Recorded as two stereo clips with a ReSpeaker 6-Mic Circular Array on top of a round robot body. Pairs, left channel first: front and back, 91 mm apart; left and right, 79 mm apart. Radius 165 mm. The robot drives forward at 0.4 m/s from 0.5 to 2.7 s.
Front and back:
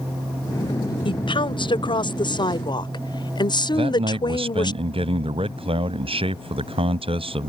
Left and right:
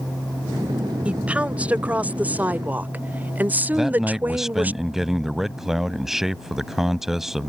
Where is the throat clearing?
I don't hear throat clearing.